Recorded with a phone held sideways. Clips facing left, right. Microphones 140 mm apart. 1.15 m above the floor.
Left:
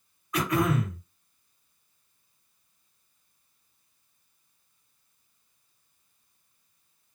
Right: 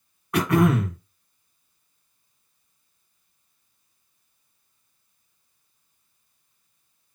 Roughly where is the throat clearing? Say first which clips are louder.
Right 6 dB; right.